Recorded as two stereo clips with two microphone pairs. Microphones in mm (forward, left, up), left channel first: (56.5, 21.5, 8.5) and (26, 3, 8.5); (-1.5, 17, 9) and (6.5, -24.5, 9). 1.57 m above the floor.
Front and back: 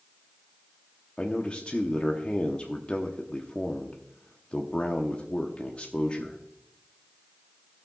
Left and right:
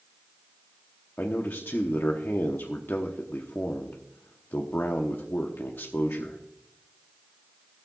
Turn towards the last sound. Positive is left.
turn(degrees=80)